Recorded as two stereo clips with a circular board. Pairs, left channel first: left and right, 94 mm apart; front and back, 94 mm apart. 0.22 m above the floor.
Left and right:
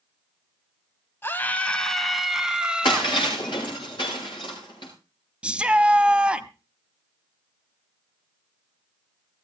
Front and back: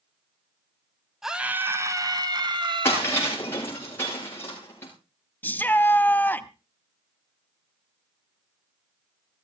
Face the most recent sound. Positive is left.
turn(degrees=-30)